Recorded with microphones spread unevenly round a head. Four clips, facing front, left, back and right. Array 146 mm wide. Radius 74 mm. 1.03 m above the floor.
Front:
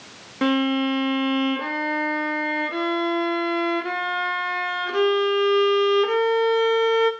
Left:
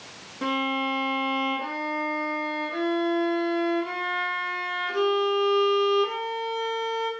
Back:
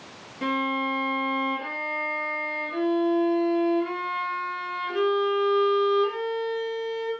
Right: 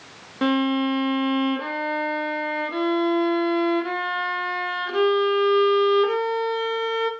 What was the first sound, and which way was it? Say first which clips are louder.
A violin: right 6 dB, front 6 dB; 30° right.